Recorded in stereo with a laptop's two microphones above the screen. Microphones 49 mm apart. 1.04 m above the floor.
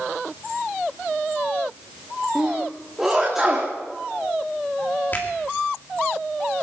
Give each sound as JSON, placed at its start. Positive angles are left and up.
{"t": 2.4, "sound": "a sneeze", "side_deg": -5, "distance_m": 2.5}
{"t": 5.1, "sound": "a finger snap", "side_deg": 40, "distance_m": 1.9}